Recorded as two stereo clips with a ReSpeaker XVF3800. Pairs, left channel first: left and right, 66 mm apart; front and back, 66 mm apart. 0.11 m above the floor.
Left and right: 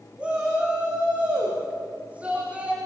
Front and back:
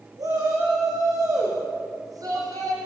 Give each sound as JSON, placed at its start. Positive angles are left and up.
{"t": 0.2, "sound": "a shout", "azimuth_deg": -160, "distance_m": 9.5}